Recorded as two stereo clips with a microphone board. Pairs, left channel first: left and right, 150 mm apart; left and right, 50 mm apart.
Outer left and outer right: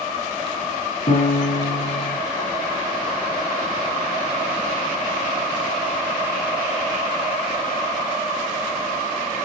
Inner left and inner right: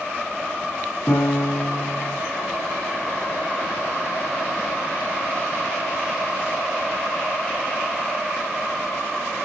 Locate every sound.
1.1 s a piano: 70° left (ahead or behind), 6 m